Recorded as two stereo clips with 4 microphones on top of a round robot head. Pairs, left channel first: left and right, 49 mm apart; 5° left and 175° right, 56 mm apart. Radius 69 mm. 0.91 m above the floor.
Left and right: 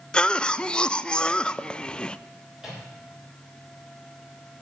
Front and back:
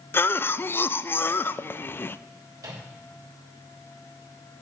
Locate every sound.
0.1 s a cough: 25° left, 0.5 m
2.6 s a microwave: 175° right, 4 m